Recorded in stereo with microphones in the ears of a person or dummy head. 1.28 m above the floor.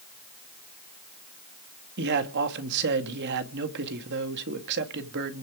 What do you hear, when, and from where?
2.0 s a man speaking: 65° right (ahead or behind), 2 m